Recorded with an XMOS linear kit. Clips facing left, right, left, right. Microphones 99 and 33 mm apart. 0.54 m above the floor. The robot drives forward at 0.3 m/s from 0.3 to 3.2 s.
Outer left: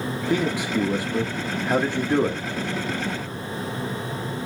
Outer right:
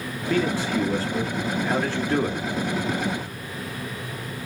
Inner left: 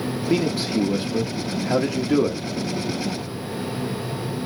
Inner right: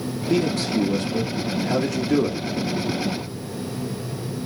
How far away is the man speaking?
About 1.2 m.